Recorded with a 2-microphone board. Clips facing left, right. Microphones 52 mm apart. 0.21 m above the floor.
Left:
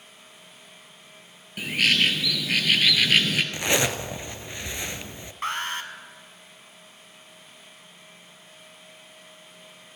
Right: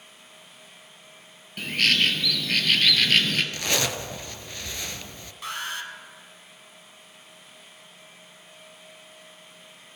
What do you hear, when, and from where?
1.6 s a bird: 5° left (ahead or behind), 1.2 m
3.5 s a zipper: 20° left (ahead or behind), 0.6 m
5.4 s an alarm: 45° left (ahead or behind), 1.2 m